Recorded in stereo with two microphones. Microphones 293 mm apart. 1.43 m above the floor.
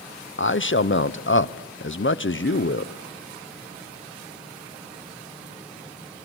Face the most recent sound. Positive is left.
turn(degrees=40)  # may be behind; listen again after turning